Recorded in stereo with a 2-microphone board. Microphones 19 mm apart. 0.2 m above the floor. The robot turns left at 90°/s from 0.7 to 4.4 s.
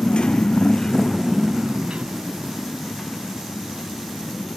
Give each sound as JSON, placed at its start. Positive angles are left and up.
{"t": 0.0, "sound": "a motorcycle", "side_deg": 80}